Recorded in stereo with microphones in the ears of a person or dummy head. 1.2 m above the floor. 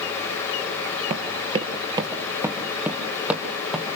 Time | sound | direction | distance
1.1 | running footsteps | 30° right (ahead or behind) | 1.5 m